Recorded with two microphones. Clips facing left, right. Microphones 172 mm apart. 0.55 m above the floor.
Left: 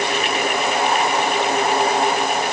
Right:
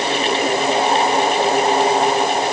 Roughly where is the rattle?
No rattle in this recording.